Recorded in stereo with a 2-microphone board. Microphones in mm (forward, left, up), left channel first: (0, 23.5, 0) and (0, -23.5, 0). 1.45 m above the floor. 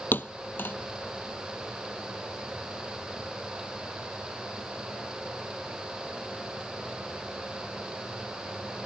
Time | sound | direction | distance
0.1 | a thud | 45° left (ahead or behind) | ?